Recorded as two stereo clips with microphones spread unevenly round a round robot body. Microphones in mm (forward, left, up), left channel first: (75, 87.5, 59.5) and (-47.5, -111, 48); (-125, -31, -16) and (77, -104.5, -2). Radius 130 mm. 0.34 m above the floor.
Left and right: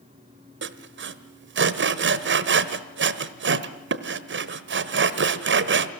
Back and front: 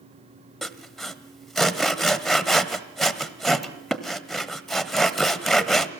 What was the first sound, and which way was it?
Sawing, 115° right.